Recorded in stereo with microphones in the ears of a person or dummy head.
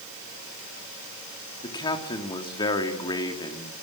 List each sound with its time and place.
1.6 s a man speaking: 25° left (ahead or behind), 3.5 m